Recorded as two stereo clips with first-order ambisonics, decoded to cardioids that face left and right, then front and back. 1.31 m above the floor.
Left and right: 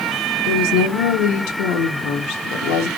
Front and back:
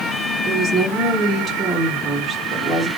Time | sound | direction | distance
0.4 | a woman speaking | 100° left | 1.1 m